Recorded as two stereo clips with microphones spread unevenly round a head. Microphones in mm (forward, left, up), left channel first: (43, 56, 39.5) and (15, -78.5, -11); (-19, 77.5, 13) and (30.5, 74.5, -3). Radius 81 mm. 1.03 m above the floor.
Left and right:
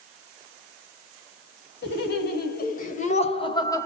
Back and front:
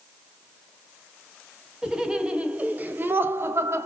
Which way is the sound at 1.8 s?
70° left.